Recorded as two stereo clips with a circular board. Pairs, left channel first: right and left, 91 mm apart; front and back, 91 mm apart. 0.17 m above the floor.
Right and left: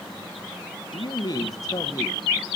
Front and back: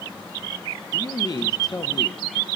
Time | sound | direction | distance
0.9 | a man speaking | 50° right | 3 m